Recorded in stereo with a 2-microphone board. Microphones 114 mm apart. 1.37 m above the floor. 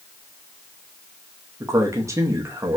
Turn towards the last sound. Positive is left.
turn(degrees=-25)  # may be behind; listen again after turning